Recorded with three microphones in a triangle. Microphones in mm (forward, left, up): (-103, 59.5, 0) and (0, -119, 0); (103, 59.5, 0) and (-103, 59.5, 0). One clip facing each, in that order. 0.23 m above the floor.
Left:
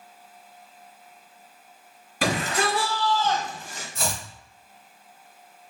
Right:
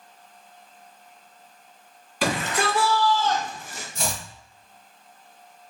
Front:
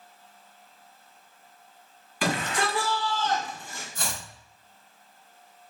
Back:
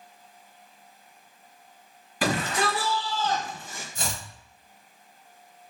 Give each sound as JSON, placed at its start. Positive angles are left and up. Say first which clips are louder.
{"t": 2.2, "sound": "a shout", "louder": "even, back 2 dB", "azimuth_deg": 145, "distance_m": 1.7}
{"t": 4.0, "sound": "chopping", "louder": "even, back 1 dB", "azimuth_deg": -155, "distance_m": 1.7}